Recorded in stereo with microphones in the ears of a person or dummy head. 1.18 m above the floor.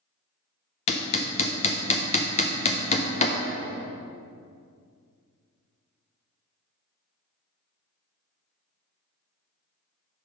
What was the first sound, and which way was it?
Hammering, 35° left (ahead or behind).